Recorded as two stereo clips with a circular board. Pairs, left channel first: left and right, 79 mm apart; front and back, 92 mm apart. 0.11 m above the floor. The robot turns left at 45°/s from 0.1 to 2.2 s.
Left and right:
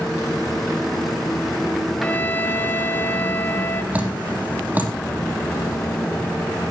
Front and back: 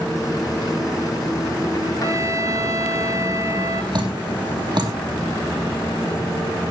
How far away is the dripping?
About 3 m.